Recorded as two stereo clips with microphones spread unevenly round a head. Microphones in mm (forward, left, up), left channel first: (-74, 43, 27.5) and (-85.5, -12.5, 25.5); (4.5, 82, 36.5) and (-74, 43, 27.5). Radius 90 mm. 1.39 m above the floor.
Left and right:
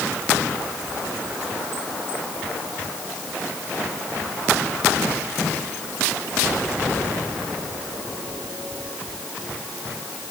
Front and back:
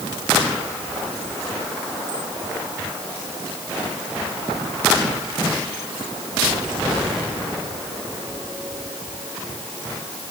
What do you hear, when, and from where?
Only background noise.